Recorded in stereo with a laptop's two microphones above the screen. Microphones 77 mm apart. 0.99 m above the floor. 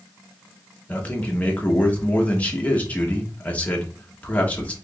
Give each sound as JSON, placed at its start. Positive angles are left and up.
{"t": 0.9, "sound": "a man speaking", "side_deg": 20, "distance_m": 0.8}